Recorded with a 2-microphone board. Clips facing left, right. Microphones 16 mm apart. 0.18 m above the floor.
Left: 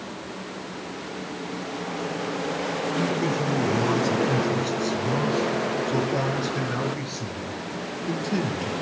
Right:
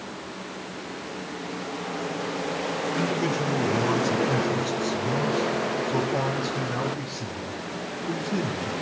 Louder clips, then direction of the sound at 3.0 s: Left 1 dB; 10° right (ahead or behind).